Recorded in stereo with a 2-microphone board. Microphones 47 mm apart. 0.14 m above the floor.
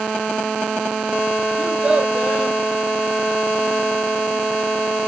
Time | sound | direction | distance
1.6 | a child speaking | 20° right (ahead or behind) | 2.5 m